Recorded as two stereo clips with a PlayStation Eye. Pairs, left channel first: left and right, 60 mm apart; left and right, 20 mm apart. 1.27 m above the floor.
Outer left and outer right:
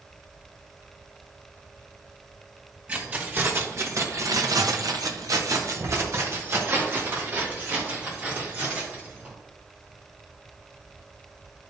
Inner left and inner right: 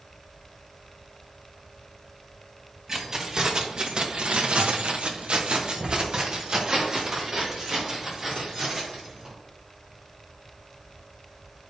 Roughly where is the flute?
No flute in this recording.